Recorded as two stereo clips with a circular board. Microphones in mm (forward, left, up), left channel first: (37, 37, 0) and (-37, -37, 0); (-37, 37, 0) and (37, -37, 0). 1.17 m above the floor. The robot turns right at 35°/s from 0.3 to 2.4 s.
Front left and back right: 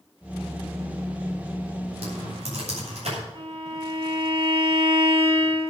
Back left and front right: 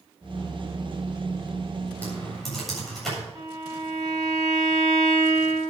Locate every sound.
2.0 s typing on a keyboard: 150° right, 8 m; by 3.2 s 140° right, 8 m
3.4 s a violin: 100° right, 4 m